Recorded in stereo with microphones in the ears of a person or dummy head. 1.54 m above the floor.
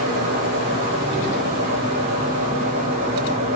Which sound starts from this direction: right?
A fan, at 0.0 s.